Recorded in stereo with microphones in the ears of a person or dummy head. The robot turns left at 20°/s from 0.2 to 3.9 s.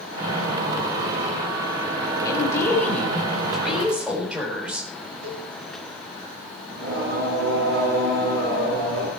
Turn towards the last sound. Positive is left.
turn(degrees=-75)  # may be behind; listen again after turning